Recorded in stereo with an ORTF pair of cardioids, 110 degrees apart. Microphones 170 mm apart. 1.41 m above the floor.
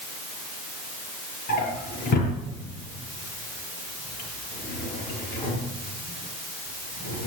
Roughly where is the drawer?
Ahead left.